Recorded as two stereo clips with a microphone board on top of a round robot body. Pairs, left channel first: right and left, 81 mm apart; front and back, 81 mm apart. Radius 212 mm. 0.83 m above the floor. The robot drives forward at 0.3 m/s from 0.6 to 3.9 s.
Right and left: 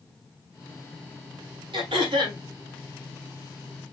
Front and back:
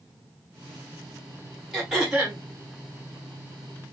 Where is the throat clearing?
95° left, 1.3 m; by 2.4 s 105° left, 1.3 m.